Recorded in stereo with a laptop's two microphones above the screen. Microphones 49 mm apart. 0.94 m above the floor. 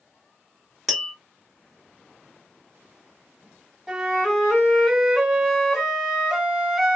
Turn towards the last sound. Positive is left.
turn(degrees=-5)  # may be behind; listen again after turning